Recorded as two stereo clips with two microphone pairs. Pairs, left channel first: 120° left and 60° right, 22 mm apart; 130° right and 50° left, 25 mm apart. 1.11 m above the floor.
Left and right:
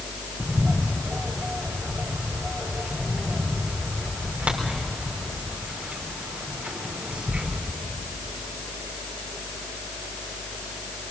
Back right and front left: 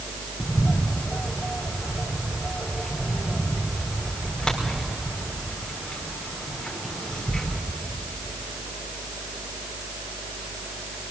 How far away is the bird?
About 4 m.